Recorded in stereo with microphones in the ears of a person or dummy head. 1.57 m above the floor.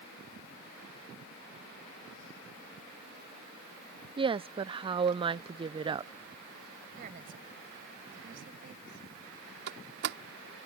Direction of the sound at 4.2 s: 30° right (ahead or behind).